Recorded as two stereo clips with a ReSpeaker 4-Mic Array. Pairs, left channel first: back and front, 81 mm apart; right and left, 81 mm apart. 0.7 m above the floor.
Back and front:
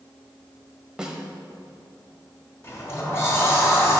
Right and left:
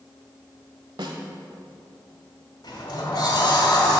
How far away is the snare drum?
About 1.1 m.